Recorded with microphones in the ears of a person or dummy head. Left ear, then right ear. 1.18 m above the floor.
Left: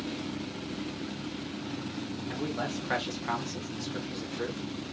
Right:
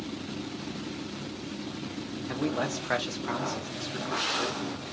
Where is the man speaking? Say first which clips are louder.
Right 4 dB; 35° right (ahead or behind), 0.5 m; by 4.6 s 15° left (ahead or behind), 1.1 m.